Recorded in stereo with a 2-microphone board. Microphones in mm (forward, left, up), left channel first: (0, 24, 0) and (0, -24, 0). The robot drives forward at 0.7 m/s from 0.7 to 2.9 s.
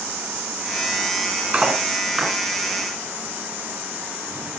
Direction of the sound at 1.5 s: 15° right (ahead or behind).